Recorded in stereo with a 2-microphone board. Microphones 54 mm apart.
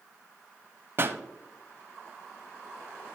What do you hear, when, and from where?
1.0 s a pop: 45° right (ahead or behind), 0.6 m